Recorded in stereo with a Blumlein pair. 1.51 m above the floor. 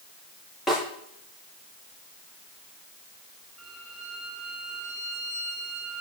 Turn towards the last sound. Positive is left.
turn(degrees=-5)